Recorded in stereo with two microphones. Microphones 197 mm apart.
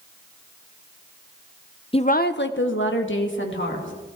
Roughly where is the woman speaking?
Left.